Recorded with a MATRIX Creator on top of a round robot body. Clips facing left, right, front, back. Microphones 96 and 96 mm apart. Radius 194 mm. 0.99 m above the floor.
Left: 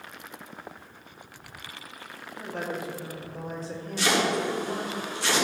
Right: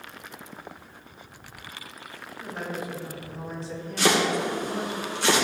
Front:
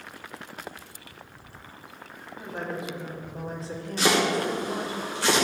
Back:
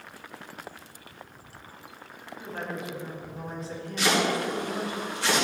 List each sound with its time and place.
2.4 s a woman speaking: 70° left, 2.5 m; by 5.0 s 35° left, 3.5 m
4.0 s chopping: 55° right, 2.5 m